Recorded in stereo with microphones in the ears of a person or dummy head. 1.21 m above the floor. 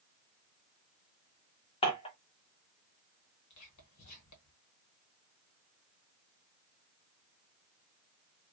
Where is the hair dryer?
No hair dryer in this recording.